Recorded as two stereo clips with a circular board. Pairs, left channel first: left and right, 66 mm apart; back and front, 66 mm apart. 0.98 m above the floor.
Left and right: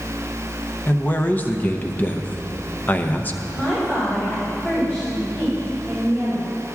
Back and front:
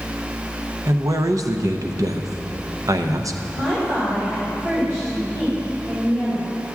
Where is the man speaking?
30° left, 0.6 m.